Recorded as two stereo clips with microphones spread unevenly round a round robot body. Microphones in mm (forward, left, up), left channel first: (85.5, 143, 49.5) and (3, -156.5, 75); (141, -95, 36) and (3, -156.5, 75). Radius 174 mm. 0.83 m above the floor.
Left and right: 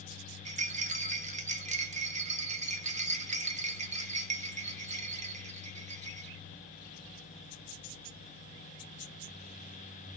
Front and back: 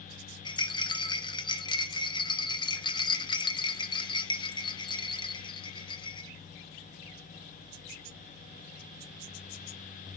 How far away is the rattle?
About 1.2 m.